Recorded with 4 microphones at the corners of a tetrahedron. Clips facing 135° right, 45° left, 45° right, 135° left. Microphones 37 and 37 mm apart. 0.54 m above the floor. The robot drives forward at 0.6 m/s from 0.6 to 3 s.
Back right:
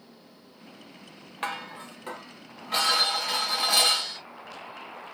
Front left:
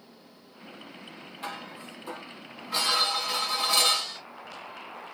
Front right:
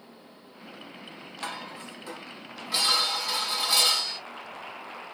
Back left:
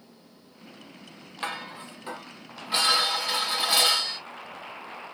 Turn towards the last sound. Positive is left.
turn(degrees=-165)